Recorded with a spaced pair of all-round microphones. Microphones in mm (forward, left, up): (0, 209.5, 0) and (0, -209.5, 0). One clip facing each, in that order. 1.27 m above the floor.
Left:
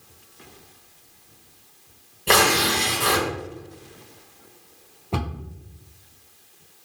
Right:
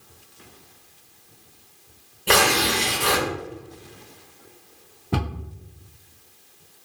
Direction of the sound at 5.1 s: 35° right (ahead or behind).